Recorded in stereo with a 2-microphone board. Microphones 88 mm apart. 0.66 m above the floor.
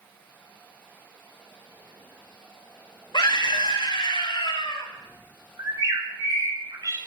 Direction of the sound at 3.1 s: 60° left (ahead or behind).